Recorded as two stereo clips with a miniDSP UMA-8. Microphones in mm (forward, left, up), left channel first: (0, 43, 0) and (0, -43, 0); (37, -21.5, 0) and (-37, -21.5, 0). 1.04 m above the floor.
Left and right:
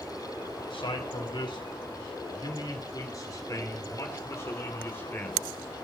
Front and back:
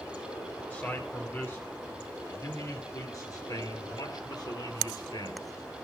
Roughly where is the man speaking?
Ahead left.